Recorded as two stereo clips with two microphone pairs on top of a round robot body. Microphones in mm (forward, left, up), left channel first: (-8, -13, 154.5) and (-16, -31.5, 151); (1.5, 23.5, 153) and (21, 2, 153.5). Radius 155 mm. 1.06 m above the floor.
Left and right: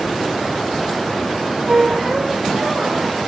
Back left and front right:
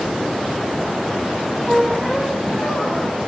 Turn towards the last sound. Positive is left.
turn(degrees=-170)